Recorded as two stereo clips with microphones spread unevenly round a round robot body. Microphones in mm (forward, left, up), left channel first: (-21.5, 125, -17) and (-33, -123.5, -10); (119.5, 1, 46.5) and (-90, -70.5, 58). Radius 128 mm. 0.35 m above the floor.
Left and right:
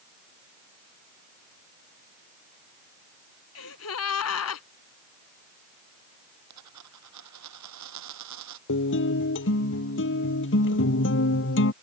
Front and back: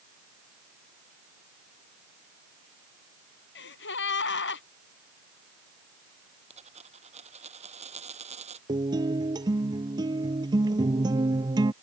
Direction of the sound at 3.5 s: 55° left.